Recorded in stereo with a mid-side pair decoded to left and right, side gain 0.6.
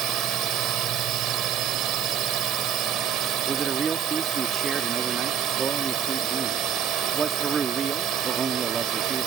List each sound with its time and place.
0.0 s a drone: 60° right
3.5 s a man speaking: 30° right